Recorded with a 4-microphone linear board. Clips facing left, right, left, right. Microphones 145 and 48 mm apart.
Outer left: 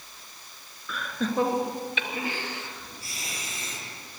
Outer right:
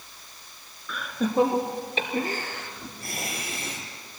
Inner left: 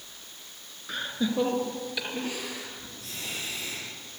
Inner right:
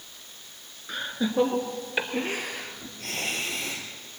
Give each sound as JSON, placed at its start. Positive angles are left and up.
{"t": 0.9, "sound": "laughter", "side_deg": 0, "distance_m": 1.9}